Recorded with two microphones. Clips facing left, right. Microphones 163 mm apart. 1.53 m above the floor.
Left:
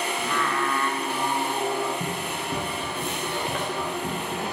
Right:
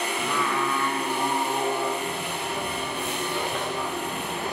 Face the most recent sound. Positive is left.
turn(degrees=45)  # may be behind; listen again after turning